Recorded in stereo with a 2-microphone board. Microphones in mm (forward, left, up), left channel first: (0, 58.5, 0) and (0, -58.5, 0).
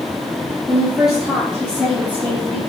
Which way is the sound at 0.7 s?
5° right (ahead or behind).